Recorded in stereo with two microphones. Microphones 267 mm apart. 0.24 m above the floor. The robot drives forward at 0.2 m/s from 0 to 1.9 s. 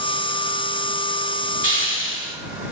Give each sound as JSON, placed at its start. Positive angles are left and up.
{"t": 1.6, "sound": "a hiss", "side_deg": 50, "distance_m": 0.8}